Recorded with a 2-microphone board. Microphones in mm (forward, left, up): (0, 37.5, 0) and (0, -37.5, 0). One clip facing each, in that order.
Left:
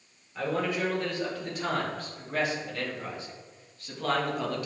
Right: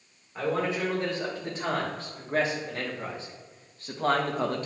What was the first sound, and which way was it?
A man speaking, 30° right (ahead or behind).